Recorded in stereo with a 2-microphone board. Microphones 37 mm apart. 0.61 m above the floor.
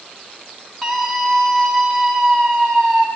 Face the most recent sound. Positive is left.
turn(degrees=15)  # may be behind; listen again after turning